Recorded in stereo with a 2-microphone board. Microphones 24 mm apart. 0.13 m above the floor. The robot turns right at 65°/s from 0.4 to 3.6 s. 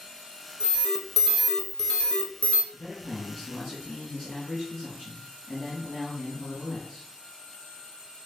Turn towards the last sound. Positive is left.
turn(degrees=170)